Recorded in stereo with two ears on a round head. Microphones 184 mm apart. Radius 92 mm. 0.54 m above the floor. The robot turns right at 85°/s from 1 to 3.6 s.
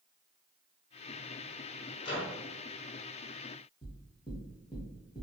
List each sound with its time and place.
2.0 s a microwave: 45° left, 1.1 m; by 2.4 s 75° left, 1.1 m
3.8 s knocking: 25° left (ahead or behind), 1.2 m